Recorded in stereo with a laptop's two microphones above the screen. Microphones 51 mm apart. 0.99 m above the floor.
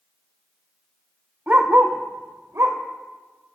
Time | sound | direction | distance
1.5 | a dog barking | 30° right (ahead or behind) | 1.4 m